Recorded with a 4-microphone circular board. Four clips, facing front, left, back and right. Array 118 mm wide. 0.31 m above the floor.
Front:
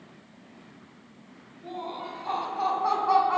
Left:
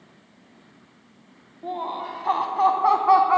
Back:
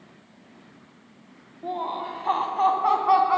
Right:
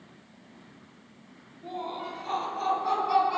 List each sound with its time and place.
1.6 s laughter: 140° left, 1.8 m; by 3.4 s 100° left, 2 m